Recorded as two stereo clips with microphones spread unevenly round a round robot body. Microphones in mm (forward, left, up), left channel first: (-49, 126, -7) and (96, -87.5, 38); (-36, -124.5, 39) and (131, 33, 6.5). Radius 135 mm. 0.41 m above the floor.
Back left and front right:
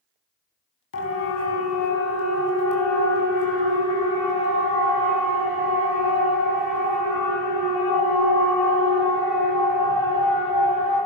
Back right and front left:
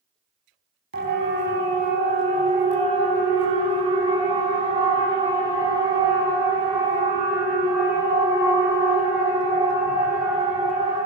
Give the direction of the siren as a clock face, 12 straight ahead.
9 o'clock.